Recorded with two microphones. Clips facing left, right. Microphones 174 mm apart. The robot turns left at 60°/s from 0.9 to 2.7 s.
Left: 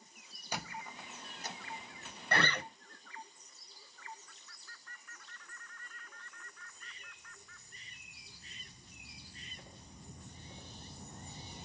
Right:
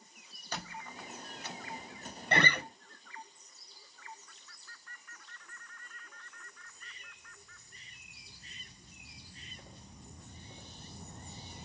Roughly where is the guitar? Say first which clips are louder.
Right 3 dB; right.